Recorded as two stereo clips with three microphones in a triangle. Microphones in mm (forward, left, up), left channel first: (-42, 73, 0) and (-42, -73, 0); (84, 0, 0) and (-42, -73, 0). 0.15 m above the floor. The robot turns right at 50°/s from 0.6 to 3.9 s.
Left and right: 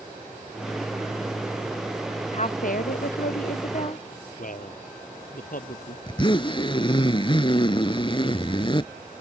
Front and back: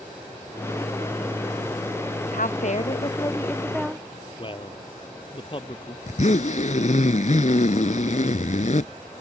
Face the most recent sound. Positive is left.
turn(degrees=45)